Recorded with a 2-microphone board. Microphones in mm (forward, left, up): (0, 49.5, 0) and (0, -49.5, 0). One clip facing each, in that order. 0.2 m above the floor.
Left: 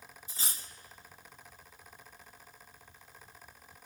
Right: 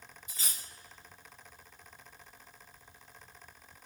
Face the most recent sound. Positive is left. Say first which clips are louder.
# left 2 dB
turn(degrees=35)  # may be behind; listen again after turning